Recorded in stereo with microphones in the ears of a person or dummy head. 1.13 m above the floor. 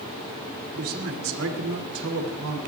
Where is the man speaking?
65° right (ahead or behind), 2.5 m; by 2.6 s 85° right, 3.5 m.